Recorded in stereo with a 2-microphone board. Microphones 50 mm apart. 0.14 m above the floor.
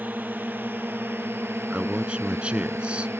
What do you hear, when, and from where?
0.0 s a drone: 35° right (ahead or behind); by 3.2 s 55° right (ahead or behind)
1.7 s a man speaking: 20° right (ahead or behind)